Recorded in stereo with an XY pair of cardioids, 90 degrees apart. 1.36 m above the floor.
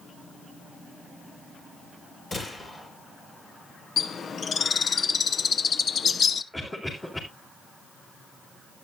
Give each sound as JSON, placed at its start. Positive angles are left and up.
{"t": 2.3, "sound": "a gunshot", "azimuth_deg": 40, "distance_m": 6.0}
{"t": 4.0, "sound": "a bird", "azimuth_deg": 50, "distance_m": 0.7}
{"t": 6.5, "sound": "a cough", "azimuth_deg": 20, "distance_m": 4.0}